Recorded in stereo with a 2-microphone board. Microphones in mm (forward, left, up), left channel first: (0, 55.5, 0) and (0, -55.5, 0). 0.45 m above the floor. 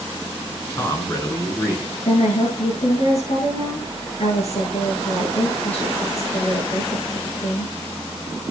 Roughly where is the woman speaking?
Left.